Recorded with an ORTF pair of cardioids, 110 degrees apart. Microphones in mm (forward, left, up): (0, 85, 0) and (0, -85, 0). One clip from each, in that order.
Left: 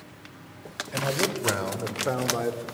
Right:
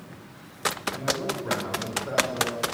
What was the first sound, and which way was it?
A man speaking, 60° left.